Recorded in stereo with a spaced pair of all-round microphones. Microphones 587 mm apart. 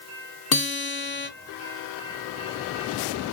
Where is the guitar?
40° left (ahead or behind), 0.6 m.